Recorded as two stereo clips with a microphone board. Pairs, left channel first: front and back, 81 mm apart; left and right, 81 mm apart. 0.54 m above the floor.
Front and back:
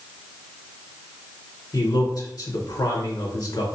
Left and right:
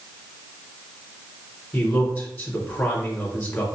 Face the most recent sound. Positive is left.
turn(degrees=30)